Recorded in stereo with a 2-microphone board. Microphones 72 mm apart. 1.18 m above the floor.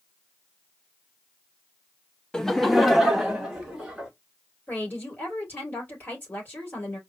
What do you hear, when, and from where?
2.3 s laughter: 10° left (ahead or behind), 0.5 m; by 4.1 s 10° right (ahead or behind), 2.5 m
4.7 s a woman speaking: 25° left (ahead or behind), 3 m